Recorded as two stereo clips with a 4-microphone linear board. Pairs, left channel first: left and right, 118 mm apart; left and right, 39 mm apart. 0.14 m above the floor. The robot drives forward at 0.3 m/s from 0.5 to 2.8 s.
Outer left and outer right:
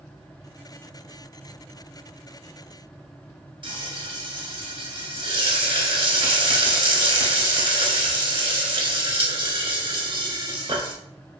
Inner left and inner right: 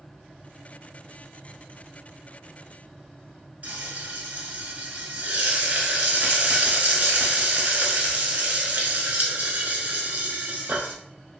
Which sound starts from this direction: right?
Frying, at 3.6 s.